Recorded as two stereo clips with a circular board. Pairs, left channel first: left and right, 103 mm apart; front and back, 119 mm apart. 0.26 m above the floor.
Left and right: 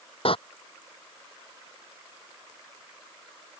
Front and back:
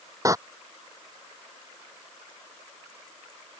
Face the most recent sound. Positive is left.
turn(degrees=115)